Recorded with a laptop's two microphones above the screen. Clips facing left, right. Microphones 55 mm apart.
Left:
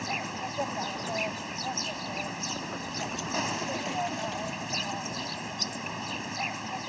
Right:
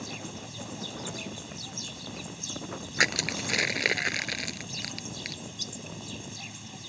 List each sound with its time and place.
0.0 s an insect: 55° left (ahead or behind)
3.0 s crushing: 80° right